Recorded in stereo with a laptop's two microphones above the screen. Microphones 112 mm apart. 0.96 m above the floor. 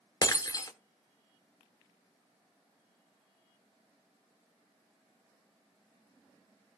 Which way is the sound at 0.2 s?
35° left (ahead or behind).